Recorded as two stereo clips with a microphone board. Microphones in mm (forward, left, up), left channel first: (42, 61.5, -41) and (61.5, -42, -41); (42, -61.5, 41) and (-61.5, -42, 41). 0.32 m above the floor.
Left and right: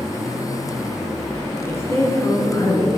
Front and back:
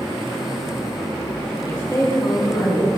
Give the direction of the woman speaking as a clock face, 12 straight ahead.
11 o'clock.